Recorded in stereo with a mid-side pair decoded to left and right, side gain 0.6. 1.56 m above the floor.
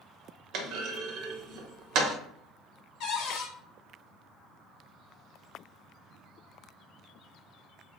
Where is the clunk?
65° right, 0.6 m.